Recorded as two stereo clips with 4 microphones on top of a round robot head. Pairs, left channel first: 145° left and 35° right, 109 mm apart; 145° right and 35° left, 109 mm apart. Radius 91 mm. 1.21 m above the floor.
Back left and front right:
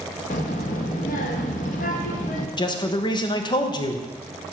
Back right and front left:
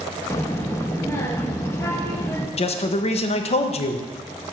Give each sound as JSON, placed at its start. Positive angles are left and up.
{"t": 0.3, "sound": "a child speaking", "azimuth_deg": 145, "distance_m": 0.8}
{"t": 2.6, "sound": "a man speaking", "azimuth_deg": -170, "distance_m": 0.8}